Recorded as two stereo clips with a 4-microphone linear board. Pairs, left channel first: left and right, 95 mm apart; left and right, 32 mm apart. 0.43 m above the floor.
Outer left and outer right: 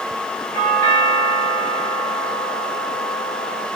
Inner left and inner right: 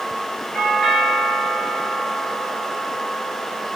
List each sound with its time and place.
0.5 s a doorbell: 35° left (ahead or behind), 2.5 m